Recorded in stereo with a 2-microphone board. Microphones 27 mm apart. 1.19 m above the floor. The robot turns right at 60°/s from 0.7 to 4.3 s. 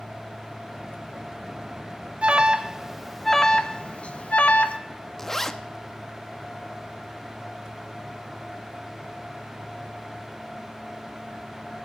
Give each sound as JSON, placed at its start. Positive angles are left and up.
{"t": 2.2, "sound": "an alarm", "side_deg": -45, "distance_m": 1.0}
{"t": 5.2, "sound": "a zipper", "side_deg": 10, "distance_m": 0.8}